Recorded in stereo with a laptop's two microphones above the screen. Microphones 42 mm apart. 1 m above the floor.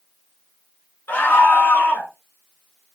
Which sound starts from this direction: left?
A scream, at 1.1 s.